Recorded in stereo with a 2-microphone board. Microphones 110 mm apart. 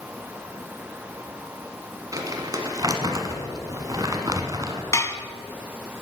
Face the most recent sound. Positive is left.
turn(degrees=25)  # may be behind; listen again after turning